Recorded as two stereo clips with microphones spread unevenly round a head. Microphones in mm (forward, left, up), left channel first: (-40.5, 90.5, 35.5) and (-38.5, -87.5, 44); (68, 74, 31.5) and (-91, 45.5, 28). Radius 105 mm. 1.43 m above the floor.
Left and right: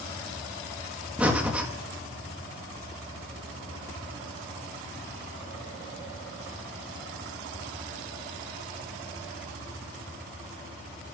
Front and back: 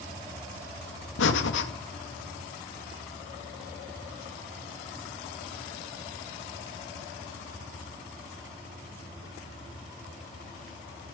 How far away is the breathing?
About 1.9 m.